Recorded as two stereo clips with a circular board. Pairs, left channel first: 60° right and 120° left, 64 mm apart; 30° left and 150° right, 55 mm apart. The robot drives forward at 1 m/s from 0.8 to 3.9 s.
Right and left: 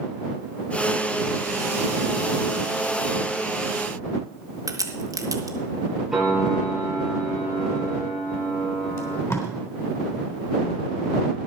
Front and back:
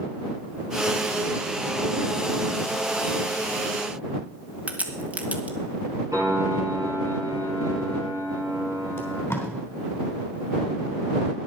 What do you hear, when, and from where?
4.7 s a crack: 145° left, 1.5 m
6.1 s a piano: 155° right, 8.5 m
9.0 s tape being pulled: 20° right, 3.5 m